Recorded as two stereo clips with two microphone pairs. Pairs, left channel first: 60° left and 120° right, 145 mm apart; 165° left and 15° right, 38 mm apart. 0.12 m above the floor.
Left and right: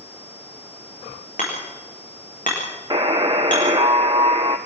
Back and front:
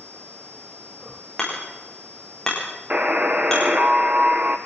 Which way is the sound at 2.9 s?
60° right.